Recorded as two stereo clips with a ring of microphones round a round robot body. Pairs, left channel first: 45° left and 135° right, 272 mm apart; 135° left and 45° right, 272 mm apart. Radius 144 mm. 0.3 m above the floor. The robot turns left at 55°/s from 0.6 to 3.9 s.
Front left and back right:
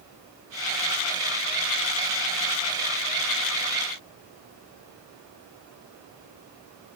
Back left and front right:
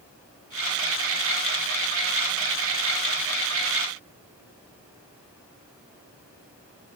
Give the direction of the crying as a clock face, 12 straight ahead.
I don't hear crying.